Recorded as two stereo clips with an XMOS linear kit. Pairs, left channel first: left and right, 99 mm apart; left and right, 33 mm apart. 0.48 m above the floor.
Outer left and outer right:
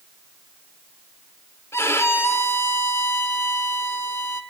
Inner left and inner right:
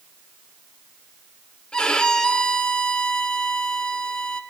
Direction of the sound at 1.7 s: 25° left (ahead or behind).